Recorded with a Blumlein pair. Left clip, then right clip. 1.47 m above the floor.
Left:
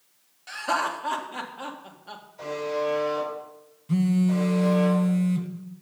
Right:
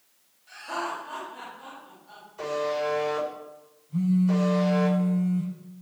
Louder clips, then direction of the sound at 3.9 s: Left 1 dB; 45° left.